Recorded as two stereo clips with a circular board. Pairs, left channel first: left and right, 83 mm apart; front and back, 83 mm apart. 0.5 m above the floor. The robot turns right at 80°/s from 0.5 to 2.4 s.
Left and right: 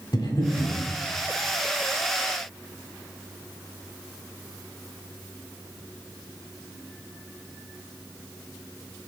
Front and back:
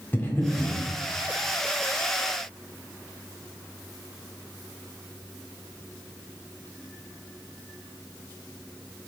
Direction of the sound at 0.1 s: 65° left.